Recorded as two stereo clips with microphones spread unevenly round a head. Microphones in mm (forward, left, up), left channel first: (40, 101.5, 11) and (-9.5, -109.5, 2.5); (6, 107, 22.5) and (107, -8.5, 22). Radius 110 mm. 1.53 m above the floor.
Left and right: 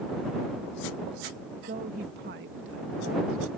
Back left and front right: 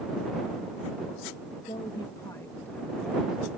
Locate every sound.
1.7 s a woman speaking: 160° right; by 3.5 s 135° right